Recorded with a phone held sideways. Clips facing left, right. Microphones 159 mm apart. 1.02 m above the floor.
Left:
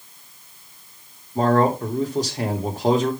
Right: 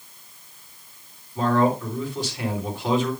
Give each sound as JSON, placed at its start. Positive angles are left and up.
{"t": 1.4, "sound": "a man speaking", "side_deg": 40, "distance_m": 3.0}